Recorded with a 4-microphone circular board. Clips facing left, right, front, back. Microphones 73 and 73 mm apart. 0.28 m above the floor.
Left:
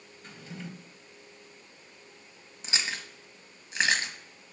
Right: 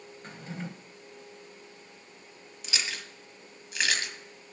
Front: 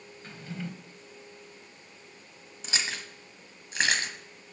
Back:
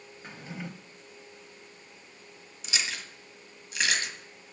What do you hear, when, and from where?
0.2 s a drawer: 120° right, 0.8 m
2.6 s chewing: 40° left, 1.2 m